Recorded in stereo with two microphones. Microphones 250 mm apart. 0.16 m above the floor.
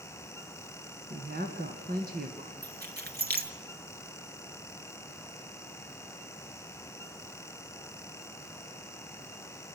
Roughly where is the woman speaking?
Right.